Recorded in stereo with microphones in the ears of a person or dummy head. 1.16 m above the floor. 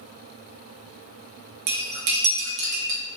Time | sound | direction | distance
1.7 | cutlery clinking | 45° right (ahead or behind) | 0.6 m